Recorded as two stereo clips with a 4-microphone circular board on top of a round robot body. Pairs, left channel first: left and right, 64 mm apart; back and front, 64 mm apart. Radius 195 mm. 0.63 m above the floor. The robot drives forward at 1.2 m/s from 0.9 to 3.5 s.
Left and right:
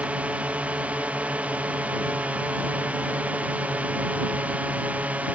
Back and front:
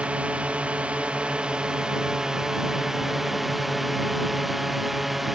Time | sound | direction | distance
0.0 | a drone | 50° right | ?